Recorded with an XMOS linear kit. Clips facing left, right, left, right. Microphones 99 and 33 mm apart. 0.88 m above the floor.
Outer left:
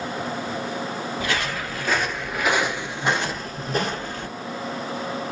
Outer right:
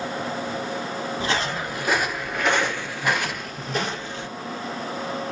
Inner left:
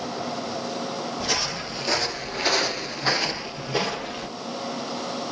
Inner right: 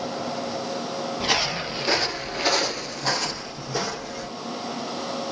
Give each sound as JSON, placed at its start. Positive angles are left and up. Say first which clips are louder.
{"t": 1.2, "sound": "footsteps", "louder": "outer right 2 dB, inner right 5 dB", "side_deg": -30, "distance_m": 1.1}